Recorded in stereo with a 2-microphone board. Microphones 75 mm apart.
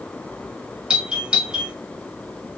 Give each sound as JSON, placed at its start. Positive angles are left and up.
{"t": 0.9, "sound": "a doorbell", "side_deg": -10, "distance_m": 1.1}